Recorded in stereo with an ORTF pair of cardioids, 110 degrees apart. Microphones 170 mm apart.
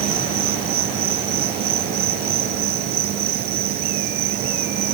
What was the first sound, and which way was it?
An insect, 65° right.